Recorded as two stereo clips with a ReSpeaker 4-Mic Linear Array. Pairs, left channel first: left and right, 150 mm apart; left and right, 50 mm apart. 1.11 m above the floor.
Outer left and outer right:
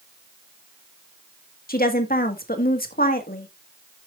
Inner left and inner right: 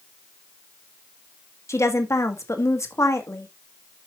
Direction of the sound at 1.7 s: 80° left.